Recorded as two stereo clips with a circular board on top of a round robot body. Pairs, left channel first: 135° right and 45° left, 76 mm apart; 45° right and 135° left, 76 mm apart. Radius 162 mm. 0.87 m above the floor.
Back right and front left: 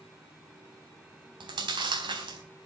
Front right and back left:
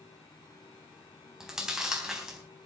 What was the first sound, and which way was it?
Chewing, 55° left.